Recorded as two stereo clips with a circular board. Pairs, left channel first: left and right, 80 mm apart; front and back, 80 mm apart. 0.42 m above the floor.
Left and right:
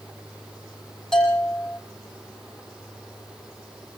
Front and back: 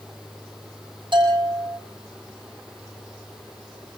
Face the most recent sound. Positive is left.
turn(degrees=175)